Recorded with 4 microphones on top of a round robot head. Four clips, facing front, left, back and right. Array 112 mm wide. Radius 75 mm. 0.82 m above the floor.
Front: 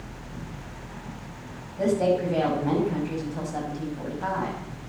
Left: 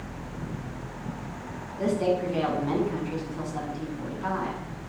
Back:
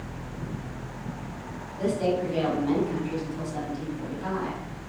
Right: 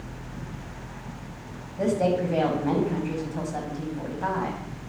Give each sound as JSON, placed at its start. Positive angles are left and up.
{"t": 1.8, "sound": "a woman speaking", "azimuth_deg": -55, "distance_m": 5.5}